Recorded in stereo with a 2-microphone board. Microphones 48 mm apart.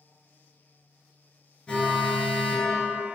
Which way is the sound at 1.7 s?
25° left (ahead or behind).